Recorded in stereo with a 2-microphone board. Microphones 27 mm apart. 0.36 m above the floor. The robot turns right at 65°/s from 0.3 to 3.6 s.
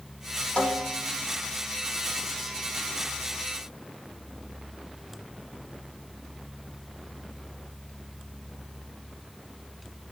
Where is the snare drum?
130° left, 4.5 m; by 1.1 s 165° left, 4.5 m.